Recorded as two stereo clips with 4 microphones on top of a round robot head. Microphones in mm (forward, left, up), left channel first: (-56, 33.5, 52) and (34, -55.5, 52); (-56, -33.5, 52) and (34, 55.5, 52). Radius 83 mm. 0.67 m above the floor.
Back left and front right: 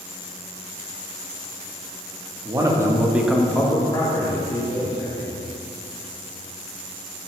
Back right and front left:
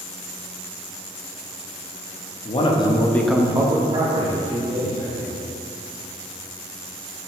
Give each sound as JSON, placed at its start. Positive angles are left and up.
{"t": 2.5, "sound": "a man speaking", "azimuth_deg": -105, "distance_m": 1.2}